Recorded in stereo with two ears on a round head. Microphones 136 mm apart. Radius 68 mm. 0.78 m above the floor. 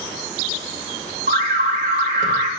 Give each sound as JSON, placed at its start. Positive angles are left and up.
{"t": 1.3, "sound": "an alarm", "side_deg": -55, "distance_m": 2.0}